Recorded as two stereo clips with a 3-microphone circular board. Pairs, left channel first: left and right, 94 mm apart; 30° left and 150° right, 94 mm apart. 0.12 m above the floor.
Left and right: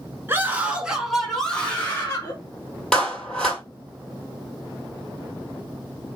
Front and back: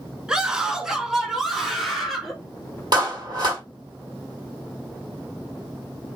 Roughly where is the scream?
Right.